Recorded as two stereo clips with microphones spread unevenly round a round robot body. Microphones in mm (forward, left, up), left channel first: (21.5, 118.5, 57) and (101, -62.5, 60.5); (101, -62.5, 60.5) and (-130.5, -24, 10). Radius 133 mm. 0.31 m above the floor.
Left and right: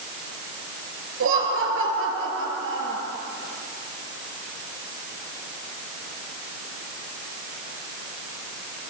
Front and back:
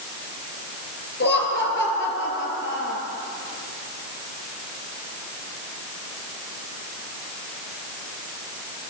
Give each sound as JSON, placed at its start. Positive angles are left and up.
{"t": 1.2, "sound": "laughter", "azimuth_deg": -55, "distance_m": 6.0}